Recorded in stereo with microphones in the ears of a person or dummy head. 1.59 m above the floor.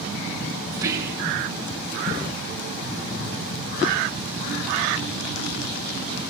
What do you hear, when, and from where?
0.7 s whispering: 15° right (ahead or behind), 2 m